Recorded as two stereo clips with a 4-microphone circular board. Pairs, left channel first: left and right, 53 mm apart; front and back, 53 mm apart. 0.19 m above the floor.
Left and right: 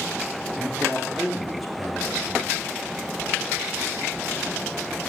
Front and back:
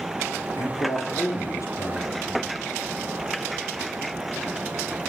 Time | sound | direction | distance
0.6 | a man speaking | straight ahead | 4 m